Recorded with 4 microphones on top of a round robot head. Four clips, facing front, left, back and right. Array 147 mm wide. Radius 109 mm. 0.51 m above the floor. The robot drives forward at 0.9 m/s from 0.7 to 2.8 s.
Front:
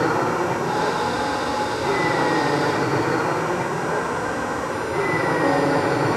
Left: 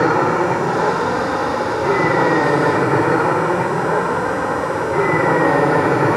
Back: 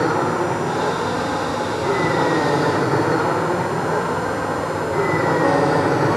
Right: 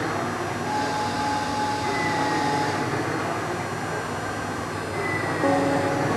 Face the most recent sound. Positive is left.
turn(degrees=110)